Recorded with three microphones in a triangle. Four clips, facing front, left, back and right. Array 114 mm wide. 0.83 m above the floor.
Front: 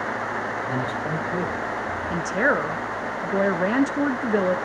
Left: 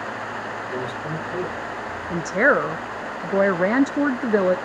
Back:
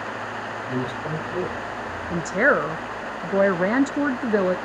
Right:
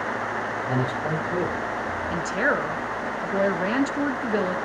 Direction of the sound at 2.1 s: 110° left.